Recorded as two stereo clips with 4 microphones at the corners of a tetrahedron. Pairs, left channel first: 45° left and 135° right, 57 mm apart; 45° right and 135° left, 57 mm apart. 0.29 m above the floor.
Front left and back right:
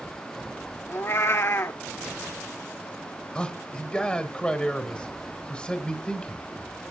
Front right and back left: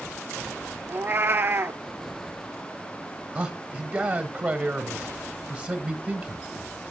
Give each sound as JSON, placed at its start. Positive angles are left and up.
{"t": 0.9, "sound": "a cat meowing", "azimuth_deg": 85, "distance_m": 0.5}
{"t": 3.4, "sound": "a man speaking", "azimuth_deg": 100, "distance_m": 1.1}